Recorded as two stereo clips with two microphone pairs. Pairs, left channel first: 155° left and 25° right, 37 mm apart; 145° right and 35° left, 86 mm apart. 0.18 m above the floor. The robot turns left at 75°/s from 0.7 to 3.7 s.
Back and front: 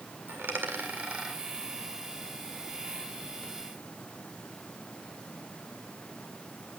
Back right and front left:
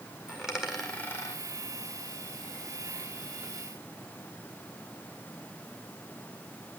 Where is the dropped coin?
50° right, 1.7 m; by 3.5 s 100° left, 1.7 m.